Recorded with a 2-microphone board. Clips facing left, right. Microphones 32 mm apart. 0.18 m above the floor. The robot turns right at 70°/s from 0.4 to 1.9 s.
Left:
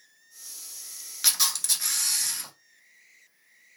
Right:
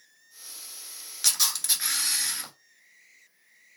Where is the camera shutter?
165° left, 0.7 m; by 2.5 s 150° right, 0.7 m.